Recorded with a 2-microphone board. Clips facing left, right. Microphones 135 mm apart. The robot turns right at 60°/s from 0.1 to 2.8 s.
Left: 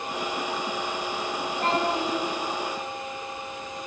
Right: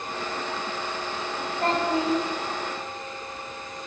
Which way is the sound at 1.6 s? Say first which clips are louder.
Right 2 dB; 130° left.